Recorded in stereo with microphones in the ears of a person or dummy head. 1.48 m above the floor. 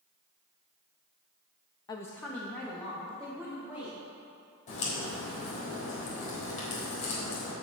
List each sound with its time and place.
1.9 s a woman speaking: 30° left (ahead or behind), 0.5 m; by 4.0 s 5° left (ahead or behind), 3.5 m
4.7 s a crack: 50° left (ahead or behind), 3.5 m